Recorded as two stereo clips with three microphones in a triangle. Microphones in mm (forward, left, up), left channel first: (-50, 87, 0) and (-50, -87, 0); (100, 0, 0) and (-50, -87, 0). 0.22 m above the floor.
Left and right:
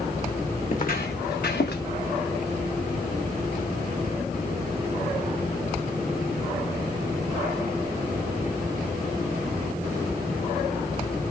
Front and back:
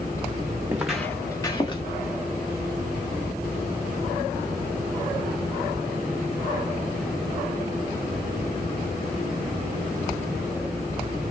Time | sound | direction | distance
0.7 | footsteps | 135° left | 1.1 m